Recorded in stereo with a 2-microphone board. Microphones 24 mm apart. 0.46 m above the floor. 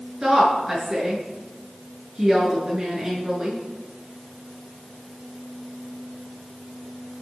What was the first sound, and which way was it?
A woman speaking, 20° right (ahead or behind).